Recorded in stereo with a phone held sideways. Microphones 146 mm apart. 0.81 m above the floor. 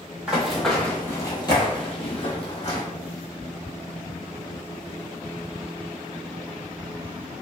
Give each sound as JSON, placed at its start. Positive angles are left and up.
{"t": 0.3, "sound": "running footsteps", "side_deg": -5, "distance_m": 1.0}